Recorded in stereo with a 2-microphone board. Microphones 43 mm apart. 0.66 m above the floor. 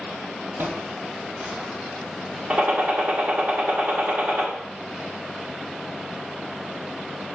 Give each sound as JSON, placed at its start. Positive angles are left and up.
{"t": 0.6, "sound": "footsteps", "side_deg": -50, "distance_m": 1.1}
{"t": 2.5, "sound": "a gunshot", "side_deg": -30, "distance_m": 1.6}